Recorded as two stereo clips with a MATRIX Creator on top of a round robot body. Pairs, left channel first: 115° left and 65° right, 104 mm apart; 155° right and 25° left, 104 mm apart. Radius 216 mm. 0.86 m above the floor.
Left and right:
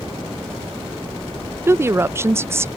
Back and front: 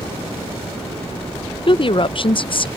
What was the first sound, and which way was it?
A woman speaking, 130° right.